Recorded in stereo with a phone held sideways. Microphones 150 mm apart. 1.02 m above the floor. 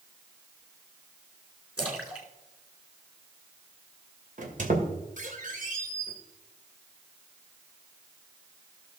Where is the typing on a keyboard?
No typing on a keyboard in this recording.